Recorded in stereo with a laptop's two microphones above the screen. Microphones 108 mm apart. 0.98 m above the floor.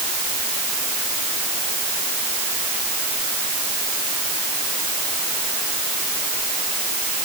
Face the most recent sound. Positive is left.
No sound to turn to.